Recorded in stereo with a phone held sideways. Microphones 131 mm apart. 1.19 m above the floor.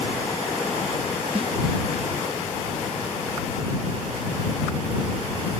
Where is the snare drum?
45° right (ahead or behind).